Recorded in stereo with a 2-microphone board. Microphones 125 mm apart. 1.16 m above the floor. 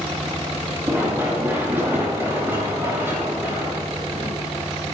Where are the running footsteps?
15° right (ahead or behind), 5.5 m; by 4.3 s 20° right (ahead or behind), 8 m.